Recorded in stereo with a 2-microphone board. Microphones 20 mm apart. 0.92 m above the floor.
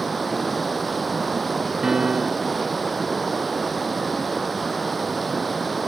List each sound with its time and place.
0.0 s running water: centre (ahead or behind)
1.8 s a piano: 35° right (ahead or behind)